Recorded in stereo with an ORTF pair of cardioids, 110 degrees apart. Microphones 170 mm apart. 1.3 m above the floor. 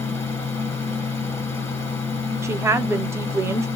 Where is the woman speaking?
15° right, 0.5 m.